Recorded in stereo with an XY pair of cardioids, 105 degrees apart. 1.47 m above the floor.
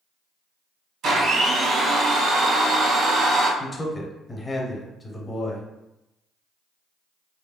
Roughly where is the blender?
Right.